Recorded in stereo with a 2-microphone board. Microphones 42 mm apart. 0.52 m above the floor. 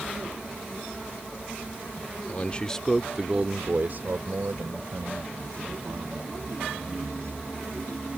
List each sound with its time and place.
2.3 s a man speaking: 35° left (ahead or behind); by 7.4 s 80° right